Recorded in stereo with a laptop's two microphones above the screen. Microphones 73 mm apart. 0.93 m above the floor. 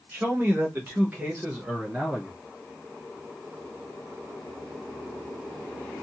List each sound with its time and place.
0.1 s a man speaking: 25° right (ahead or behind), 1.2 m; by 2.4 s 15° right (ahead or behind), 1.3 m